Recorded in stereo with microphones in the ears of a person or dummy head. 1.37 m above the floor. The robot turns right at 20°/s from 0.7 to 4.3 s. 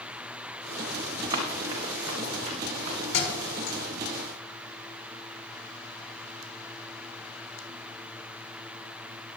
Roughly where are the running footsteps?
Right.